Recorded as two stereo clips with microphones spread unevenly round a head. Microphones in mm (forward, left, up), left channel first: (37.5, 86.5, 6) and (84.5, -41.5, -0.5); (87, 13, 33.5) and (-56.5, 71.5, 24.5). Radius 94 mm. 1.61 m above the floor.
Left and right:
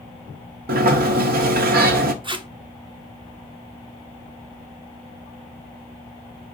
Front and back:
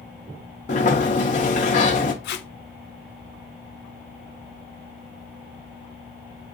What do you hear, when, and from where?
0.7 s a sliding door: 75° right, 0.6 m
2.2 s tape being pulled: 15° right, 0.6 m